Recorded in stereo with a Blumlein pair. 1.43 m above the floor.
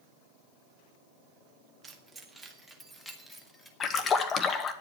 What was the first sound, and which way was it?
Keys jangling, 20° right.